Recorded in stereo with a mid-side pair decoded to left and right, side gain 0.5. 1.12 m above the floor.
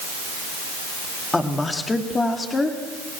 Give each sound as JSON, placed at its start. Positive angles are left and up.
{"t": 1.3, "sound": "a woman speaking", "azimuth_deg": 20, "distance_m": 2.5}